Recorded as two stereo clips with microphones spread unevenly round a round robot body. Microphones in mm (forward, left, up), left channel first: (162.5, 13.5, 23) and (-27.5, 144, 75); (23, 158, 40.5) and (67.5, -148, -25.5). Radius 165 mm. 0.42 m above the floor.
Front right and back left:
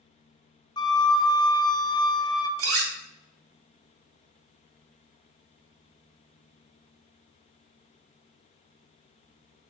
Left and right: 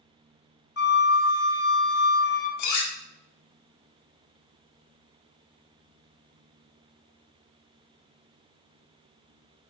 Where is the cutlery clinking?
130° left, 0.7 m.